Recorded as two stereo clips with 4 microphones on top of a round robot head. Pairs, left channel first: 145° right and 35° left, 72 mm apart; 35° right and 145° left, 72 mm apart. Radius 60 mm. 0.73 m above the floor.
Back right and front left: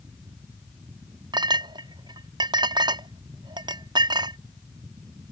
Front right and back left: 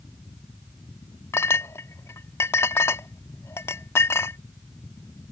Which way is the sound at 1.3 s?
20° left.